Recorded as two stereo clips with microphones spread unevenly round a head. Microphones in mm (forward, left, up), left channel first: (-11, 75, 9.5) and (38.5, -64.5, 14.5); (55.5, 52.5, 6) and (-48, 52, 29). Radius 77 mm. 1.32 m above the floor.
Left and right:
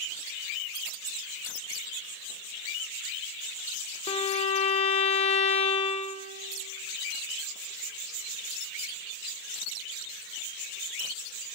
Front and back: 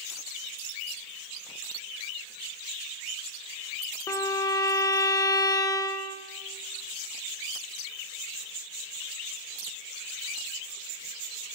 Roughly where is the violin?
Ahead left.